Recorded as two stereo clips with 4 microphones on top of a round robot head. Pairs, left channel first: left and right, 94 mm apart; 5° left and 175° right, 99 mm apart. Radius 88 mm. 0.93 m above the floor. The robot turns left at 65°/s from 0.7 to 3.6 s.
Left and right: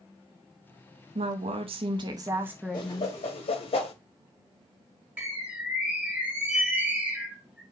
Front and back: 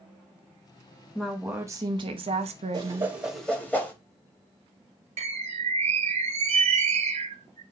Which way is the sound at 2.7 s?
135° left.